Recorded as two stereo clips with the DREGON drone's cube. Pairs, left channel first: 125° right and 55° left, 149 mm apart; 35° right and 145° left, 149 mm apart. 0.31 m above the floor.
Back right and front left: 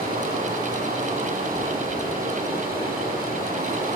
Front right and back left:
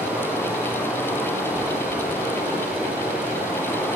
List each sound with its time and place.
0.0 s running water: 65° left, 8.5 m